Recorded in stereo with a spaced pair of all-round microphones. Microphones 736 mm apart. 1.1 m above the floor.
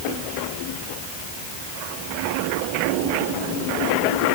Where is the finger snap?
No finger snap in this recording.